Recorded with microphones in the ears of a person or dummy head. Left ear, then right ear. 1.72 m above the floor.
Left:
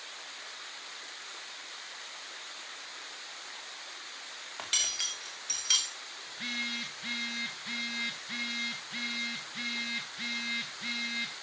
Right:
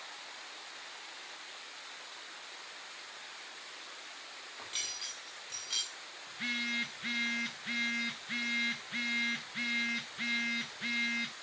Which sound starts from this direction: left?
Cutlery clinking, at 4.6 s.